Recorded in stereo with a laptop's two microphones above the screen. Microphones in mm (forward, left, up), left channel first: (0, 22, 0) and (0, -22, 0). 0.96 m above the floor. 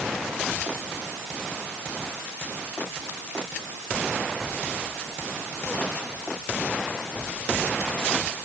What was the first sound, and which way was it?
Only background noise.